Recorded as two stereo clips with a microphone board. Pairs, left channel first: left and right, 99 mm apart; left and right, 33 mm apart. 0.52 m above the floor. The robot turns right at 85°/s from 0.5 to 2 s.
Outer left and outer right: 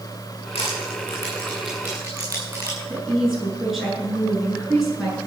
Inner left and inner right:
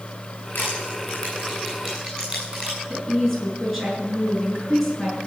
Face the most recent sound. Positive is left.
turn(degrees=0)  # may be behind; listen again after turning